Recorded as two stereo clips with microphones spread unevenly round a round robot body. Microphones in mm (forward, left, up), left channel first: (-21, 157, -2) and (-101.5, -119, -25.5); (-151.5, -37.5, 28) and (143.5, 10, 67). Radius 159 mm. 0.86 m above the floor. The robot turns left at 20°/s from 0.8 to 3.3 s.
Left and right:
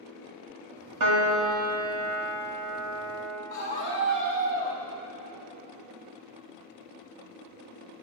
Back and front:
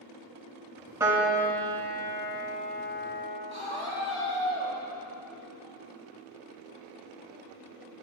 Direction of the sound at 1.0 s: 70° right.